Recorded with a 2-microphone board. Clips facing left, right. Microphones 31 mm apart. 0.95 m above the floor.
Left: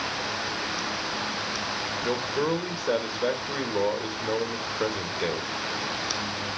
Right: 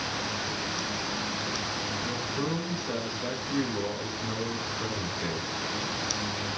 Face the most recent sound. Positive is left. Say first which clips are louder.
# left 8 dB
turn(degrees=70)  # may be behind; listen again after turning